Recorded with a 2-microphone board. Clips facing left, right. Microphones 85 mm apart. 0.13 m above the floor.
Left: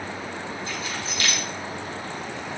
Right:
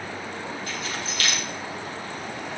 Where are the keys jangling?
25° left (ahead or behind), 4 m.